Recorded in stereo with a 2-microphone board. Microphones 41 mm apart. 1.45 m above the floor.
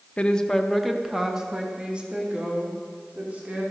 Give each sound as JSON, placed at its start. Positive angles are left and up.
{"t": 0.2, "sound": "a woman speaking", "side_deg": 30, "distance_m": 1.2}